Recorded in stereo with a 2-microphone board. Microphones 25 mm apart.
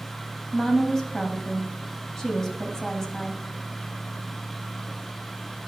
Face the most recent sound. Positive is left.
turn(degrees=20)  # may be behind; listen again after turning